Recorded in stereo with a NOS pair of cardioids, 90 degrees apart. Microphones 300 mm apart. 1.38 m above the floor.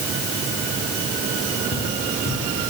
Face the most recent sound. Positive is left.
turn(degrees=40)